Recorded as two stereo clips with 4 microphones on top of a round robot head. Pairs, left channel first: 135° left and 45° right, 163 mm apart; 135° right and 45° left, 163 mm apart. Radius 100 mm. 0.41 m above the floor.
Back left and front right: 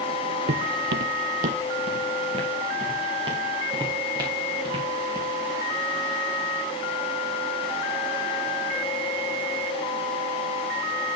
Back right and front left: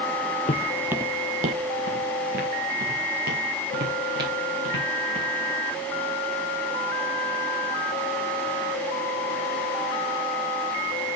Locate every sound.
0.5 s footsteps: 80° right, 0.7 m; by 5.3 s 20° left, 6.5 m